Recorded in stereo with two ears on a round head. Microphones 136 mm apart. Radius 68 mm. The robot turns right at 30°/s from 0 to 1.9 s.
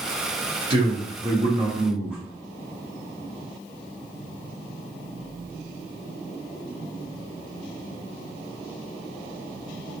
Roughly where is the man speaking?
Ahead right.